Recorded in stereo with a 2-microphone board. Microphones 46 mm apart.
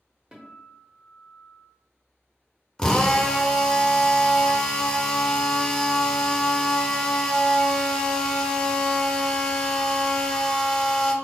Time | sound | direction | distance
0.3 | a guitar | 20° right (ahead or behind) | 0.9 m
2.8 | a drill | 15° left (ahead or behind) | 0.6 m